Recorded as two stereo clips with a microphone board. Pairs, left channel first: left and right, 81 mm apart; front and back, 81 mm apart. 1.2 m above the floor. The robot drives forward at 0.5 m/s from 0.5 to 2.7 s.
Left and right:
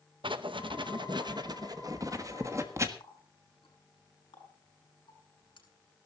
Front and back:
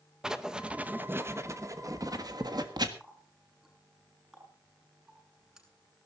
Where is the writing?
100° right, 0.9 m; by 2.9 s 145° right, 1.5 m.